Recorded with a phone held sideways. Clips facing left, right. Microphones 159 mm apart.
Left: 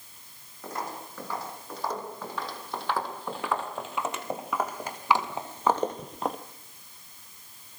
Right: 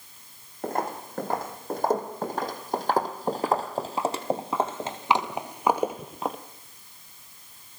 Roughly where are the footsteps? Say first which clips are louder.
Right 7 dB; right.